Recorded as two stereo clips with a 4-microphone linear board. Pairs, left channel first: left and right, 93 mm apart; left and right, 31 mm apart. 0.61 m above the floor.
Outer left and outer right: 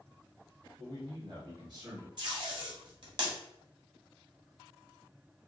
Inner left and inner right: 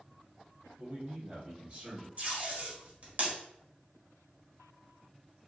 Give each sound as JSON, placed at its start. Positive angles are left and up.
{"t": 0.8, "sound": "a man speaking", "side_deg": -55, "distance_m": 2.0}
{"t": 2.2, "sound": "tape being pulled", "side_deg": -55, "distance_m": 1.5}